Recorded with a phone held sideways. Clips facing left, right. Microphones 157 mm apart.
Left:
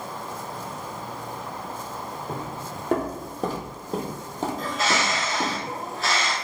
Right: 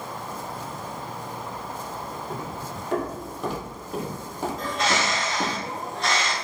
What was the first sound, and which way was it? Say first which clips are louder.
Footsteps: even; 55° left (ahead or behind).